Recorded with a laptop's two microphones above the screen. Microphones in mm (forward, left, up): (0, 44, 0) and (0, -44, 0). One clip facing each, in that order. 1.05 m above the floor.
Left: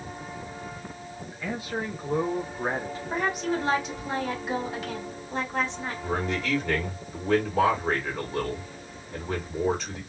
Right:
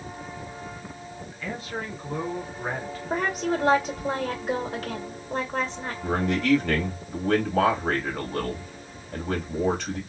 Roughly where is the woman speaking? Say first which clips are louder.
Right 2 dB; right.